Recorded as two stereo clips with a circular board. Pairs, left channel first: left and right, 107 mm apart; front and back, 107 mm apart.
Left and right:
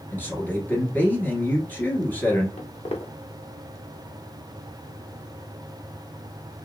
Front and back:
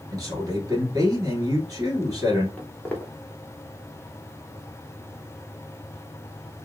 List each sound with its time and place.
0.1 s a man speaking: 155° left, 1.4 m
2.6 s footsteps: 75° left, 1.0 m